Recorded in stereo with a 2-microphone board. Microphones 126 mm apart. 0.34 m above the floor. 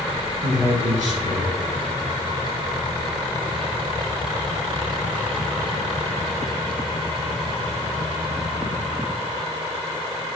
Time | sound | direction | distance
0.4 | a man speaking | 75° right (ahead or behind) | 3.5 m